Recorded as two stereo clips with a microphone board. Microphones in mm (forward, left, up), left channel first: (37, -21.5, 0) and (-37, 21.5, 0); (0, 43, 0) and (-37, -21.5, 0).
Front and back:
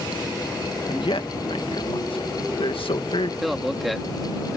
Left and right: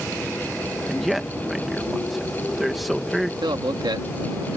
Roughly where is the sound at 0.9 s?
Ahead right.